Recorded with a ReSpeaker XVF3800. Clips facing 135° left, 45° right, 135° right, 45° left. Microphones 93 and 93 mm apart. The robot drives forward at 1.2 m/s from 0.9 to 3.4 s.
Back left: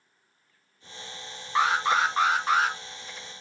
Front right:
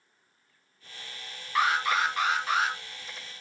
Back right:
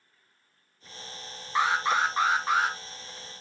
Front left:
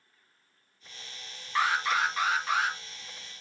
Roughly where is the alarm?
Behind.